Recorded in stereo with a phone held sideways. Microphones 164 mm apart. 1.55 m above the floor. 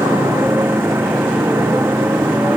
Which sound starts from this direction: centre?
A motorcycle, at 0.0 s.